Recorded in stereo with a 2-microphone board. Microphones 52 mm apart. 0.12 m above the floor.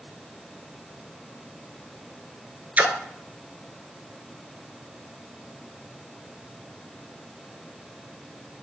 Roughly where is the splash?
Right.